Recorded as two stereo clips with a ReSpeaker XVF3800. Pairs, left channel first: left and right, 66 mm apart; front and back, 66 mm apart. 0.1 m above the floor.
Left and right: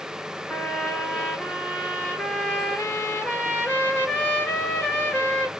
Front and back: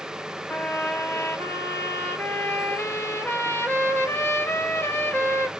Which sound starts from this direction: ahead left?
A trumpet, at 0.5 s.